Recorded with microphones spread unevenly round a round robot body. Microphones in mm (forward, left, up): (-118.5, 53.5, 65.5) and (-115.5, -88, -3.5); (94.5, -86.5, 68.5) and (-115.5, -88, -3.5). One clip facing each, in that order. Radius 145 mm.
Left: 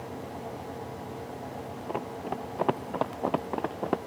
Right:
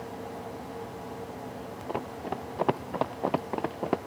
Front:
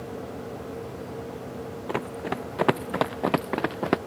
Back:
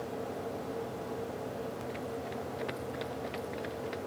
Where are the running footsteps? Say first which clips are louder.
Even, front 7 dB; 5° left; by 4.0 s straight ahead.